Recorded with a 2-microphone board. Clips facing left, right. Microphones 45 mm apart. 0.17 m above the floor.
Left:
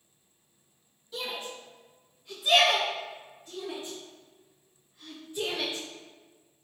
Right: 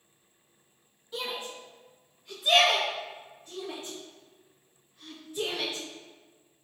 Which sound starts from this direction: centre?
A shout, at 1.1 s.